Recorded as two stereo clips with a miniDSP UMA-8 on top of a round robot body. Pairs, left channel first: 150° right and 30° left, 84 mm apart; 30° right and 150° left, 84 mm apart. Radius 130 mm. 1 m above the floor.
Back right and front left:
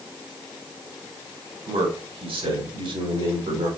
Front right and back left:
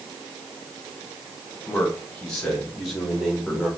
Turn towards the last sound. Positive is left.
turn(degrees=65)